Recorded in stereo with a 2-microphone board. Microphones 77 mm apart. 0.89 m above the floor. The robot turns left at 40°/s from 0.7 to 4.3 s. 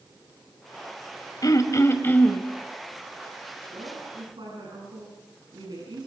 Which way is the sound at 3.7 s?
75° right (ahead or behind).